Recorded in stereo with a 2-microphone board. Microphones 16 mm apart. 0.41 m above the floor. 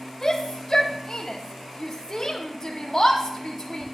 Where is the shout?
40° left (ahead or behind), 1.8 m.